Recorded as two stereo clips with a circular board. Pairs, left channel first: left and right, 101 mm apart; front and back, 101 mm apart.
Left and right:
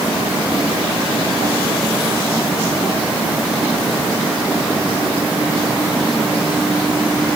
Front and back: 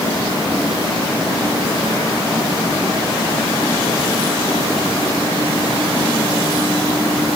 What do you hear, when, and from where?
Only background noise.